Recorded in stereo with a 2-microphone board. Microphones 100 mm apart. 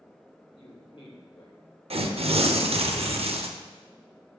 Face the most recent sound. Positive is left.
turn(degrees=-75)  # may be behind; listen again after turning